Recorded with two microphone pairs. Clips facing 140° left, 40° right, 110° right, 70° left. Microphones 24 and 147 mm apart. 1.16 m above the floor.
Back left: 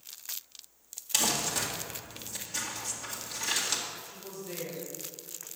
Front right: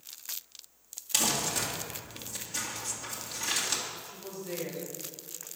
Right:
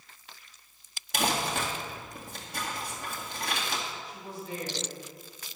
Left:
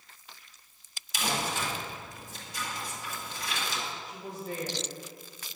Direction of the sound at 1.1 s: 135° right.